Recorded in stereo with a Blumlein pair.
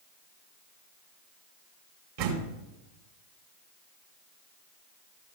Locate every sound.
2.2 s a door slam: 50° right, 3 m